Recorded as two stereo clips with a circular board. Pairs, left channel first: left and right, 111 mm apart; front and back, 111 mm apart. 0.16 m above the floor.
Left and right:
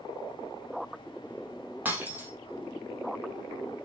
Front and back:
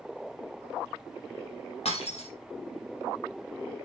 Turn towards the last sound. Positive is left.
turn(degrees=-15)